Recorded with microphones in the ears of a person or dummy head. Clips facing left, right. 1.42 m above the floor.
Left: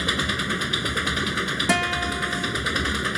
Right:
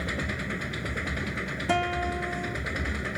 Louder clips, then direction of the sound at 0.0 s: Left 5 dB; 85° left.